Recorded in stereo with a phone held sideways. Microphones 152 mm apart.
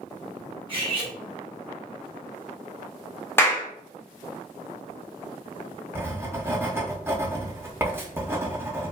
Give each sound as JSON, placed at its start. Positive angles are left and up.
{"t": 0.7, "sound": "cutlery clinking", "side_deg": -35, "distance_m": 1.1}
{"t": 3.4, "sound": "a clap", "side_deg": 15, "distance_m": 0.7}
{"t": 6.0, "sound": "writing", "side_deg": -15, "distance_m": 0.6}